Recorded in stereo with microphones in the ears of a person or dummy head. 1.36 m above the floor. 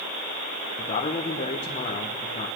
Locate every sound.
0.8 s a man speaking: 30° left (ahead or behind), 1.0 m